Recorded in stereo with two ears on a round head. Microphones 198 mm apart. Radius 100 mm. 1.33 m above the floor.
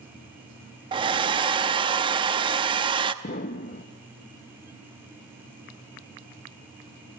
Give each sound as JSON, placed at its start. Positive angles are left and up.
{"t": 0.9, "sound": "a hair dryer", "side_deg": -20, "distance_m": 0.8}
{"t": 3.2, "sound": "an explosion", "side_deg": 40, "distance_m": 0.8}